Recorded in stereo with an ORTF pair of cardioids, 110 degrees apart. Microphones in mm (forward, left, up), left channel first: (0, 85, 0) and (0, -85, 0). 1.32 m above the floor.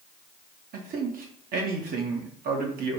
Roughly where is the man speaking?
Ahead right.